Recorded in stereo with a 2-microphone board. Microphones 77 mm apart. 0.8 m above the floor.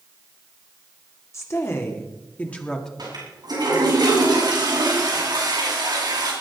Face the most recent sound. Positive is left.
turn(degrees=-60)  # may be behind; listen again after turning